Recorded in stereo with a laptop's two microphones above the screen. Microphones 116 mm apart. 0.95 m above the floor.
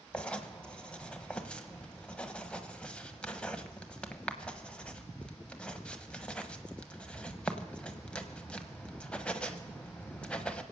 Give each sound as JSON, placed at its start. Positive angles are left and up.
{"t": 0.1, "sound": "writing", "side_deg": 10, "distance_m": 0.9}